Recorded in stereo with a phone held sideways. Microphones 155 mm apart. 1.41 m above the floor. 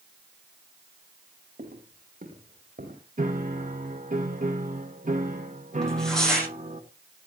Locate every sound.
1.6 s footsteps: 60° right (ahead or behind), 3.5 m; by 3.0 s 70° right (ahead or behind), 5 m
3.2 s a piano: 55° right (ahead or behind), 1.4 m
5.8 s tearing paper: 5° left (ahead or behind), 9.5 m